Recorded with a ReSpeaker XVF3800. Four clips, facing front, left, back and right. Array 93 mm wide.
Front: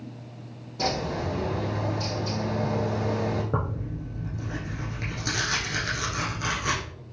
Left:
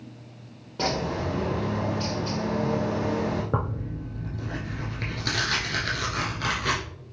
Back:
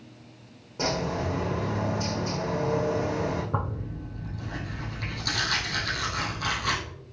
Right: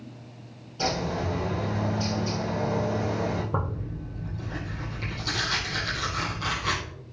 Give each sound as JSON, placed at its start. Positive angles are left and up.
{"t": 0.8, "sound": "a bird", "azimuth_deg": 110, "distance_m": 4.0}
{"t": 3.5, "sound": "tearing paper", "azimuth_deg": 70, "distance_m": 4.0}